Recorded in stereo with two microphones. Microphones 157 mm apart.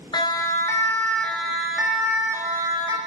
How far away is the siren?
About 2.5 m.